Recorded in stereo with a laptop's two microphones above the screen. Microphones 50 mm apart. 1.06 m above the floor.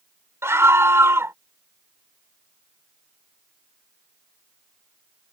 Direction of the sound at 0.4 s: 70° right (ahead or behind).